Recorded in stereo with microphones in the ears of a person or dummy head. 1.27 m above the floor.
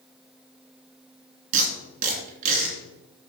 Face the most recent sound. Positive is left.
turn(degrees=-40)  # may be behind; listen again after turning